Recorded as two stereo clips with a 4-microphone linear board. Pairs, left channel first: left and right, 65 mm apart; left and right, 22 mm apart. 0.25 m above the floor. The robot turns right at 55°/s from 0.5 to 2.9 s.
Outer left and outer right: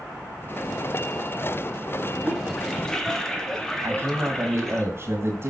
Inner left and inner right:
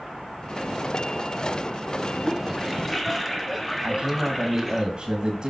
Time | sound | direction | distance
2.2 | a toilet flushing | 5° right (ahead or behind) | 1.0 m
3.8 | a man speaking | 35° right (ahead or behind) | 1.8 m